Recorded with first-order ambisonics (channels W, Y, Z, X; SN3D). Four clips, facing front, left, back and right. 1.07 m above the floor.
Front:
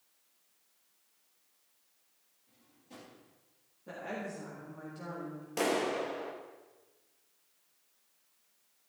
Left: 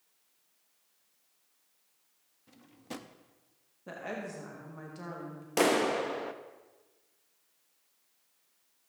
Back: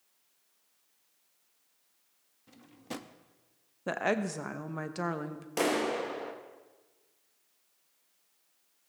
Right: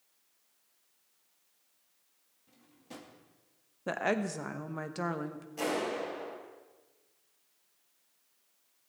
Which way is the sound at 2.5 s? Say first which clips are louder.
Left 6 dB, back 13 dB; 150° left.